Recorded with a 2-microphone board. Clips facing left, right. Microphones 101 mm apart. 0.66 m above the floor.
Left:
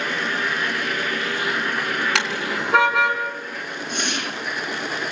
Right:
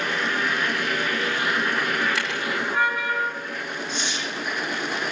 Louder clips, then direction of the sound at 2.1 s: Left 2 dB; 80° left.